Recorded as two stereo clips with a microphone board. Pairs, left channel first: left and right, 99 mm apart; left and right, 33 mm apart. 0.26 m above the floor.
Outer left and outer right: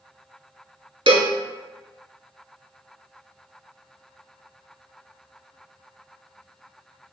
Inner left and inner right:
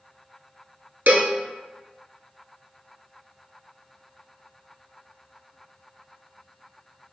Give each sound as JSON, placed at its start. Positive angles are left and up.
{"t": 1.1, "sound": "a cowbell", "side_deg": -70, "distance_m": 0.8}